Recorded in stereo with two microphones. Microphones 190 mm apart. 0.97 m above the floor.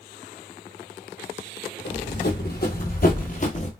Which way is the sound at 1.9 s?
60° left (ahead or behind).